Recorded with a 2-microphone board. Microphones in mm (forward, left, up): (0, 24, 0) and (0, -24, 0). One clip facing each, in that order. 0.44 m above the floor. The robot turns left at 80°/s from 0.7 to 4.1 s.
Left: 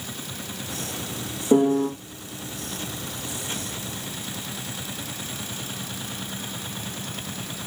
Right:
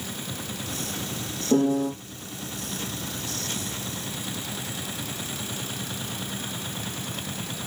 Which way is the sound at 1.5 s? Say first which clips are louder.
Left 3 dB; 120° left.